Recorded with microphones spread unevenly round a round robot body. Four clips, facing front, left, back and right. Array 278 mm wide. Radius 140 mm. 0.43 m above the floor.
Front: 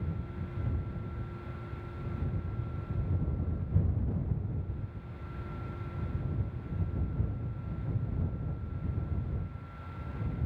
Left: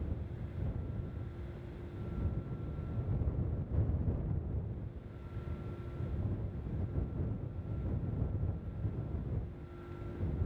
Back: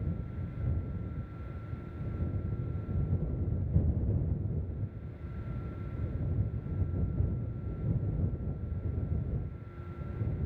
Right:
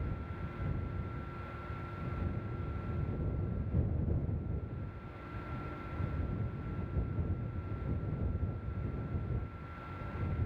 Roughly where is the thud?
No thud in this recording.